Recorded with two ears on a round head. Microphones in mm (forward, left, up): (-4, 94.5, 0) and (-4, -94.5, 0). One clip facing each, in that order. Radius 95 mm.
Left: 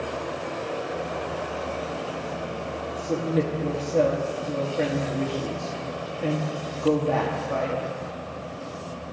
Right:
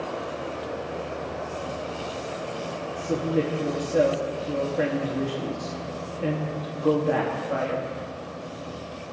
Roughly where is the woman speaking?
Centre.